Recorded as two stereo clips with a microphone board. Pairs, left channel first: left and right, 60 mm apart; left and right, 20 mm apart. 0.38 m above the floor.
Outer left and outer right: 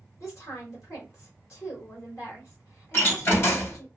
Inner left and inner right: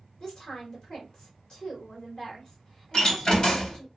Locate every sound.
0.2 s a woman speaking: 45° left (ahead or behind), 2.0 m
2.9 s a door slam: 40° left (ahead or behind), 1.2 m